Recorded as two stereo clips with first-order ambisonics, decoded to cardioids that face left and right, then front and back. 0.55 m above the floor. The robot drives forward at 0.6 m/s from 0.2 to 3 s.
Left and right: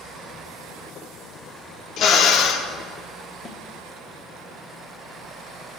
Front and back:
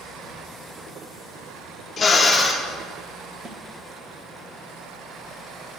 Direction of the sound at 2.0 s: 60° left.